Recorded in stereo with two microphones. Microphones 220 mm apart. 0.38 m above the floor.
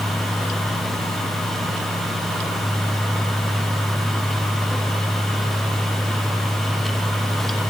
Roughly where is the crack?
I don't hear a crack.